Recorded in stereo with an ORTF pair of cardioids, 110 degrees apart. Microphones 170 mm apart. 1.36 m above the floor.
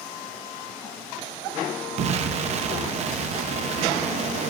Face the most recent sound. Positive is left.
turn(degrees=-45)